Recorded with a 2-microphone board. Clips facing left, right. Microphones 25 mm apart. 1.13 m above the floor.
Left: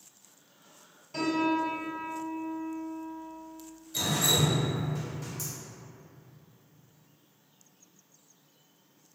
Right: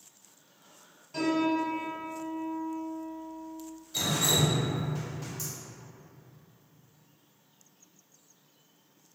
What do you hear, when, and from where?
1.1 s a piano: 5° left (ahead or behind), 1.7 m
3.9 s dripping: 10° right (ahead or behind), 0.8 m